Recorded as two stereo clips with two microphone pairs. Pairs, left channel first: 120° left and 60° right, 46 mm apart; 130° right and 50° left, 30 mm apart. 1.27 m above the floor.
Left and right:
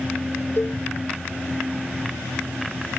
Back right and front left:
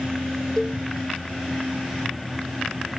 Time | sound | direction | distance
0.6 | a cowbell | 150° left | ?